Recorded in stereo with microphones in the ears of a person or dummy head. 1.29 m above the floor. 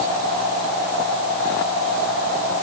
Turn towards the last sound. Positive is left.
No sound to turn to.